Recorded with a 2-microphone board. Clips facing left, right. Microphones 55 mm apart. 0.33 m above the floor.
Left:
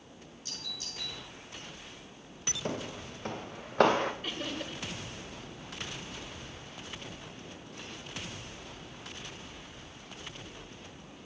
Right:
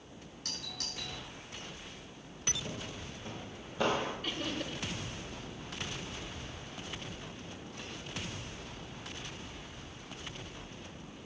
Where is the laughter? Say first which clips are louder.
Even; 10° left (ahead or behind), 1.3 m.